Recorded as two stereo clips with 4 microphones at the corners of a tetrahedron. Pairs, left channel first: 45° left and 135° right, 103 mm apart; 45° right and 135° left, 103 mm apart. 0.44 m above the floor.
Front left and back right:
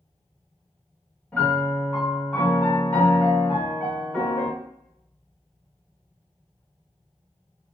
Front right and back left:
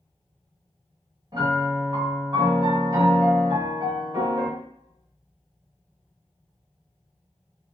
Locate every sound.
1.3 s a piano: 115° left, 1.3 m